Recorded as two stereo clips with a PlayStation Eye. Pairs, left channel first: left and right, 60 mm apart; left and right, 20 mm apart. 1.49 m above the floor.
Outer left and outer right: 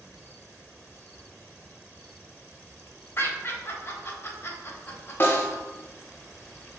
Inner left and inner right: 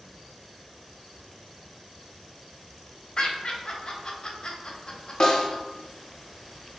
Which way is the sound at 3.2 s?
40° left (ahead or behind).